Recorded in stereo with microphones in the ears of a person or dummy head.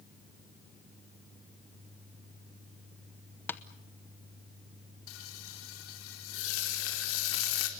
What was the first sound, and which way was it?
Tapping, 5° left (ahead or behind).